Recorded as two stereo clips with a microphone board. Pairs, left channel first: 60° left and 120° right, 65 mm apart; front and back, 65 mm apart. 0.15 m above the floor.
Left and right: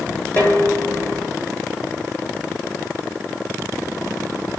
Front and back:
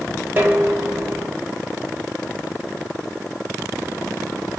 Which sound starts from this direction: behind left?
Dishes clattering, at 0.4 s.